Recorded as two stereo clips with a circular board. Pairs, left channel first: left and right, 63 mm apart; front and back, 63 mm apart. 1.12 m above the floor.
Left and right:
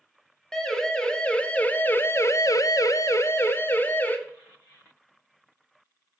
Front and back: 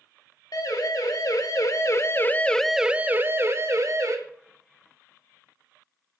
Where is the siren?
10° left, 3.5 m; by 4.2 s 150° left, 2.5 m.